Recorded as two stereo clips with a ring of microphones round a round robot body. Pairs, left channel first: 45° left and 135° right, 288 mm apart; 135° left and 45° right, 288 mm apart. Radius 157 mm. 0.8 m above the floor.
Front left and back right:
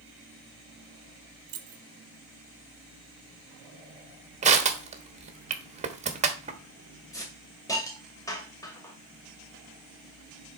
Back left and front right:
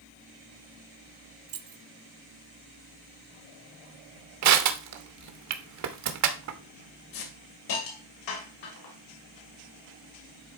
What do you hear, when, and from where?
1.5 s keys jangling: 90° right, 0.9 m
4.4 s crushing: 70° right, 1.2 m
7.1 s a hiss: 125° left, 2 m